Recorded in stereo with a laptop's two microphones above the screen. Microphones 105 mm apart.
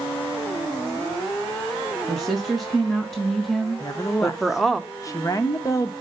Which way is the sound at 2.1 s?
Centre (ahead or behind).